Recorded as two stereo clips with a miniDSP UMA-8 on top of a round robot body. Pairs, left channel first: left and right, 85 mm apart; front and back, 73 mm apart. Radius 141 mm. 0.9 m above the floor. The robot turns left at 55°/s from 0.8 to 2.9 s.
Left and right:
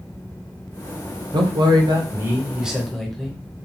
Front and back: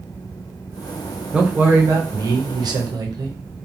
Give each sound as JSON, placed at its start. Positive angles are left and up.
{"t": 1.3, "sound": "a man speaking", "azimuth_deg": -100, "distance_m": 0.9}